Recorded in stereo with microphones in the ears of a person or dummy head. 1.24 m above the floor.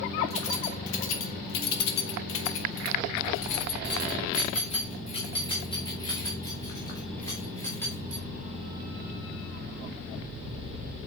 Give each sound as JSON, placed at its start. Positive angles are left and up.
{"t": 0.3, "sound": "keys jangling", "side_deg": 40, "distance_m": 1.9}